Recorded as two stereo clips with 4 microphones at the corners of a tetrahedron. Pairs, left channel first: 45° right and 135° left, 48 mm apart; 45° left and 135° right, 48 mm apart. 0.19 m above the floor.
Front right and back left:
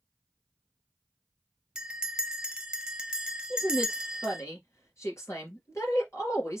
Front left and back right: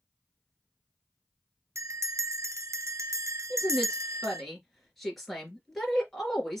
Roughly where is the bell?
Behind right.